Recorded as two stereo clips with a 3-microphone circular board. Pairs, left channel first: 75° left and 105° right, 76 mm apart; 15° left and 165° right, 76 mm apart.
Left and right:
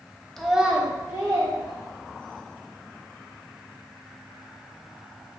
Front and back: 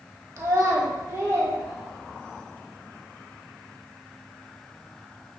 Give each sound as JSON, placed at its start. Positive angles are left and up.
{"t": 0.4, "sound": "a child speaking", "azimuth_deg": 160, "distance_m": 0.6}